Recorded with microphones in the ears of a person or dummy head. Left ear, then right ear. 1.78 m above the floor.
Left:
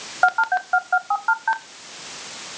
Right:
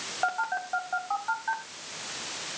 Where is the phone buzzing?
50° left (ahead or behind), 0.7 m.